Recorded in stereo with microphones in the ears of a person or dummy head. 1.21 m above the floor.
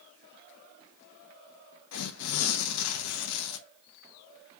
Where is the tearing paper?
80° left, 0.7 m.